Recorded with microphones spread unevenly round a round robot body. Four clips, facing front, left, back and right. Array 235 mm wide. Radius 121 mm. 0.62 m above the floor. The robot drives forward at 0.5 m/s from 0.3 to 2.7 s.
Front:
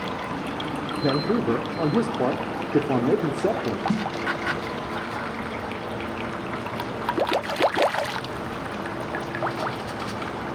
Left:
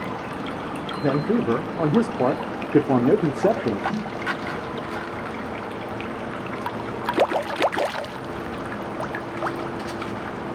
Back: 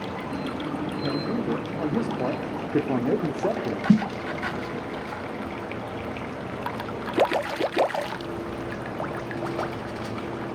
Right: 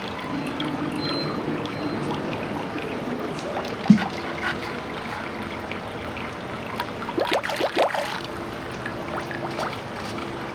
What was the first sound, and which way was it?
A man speaking, 50° left.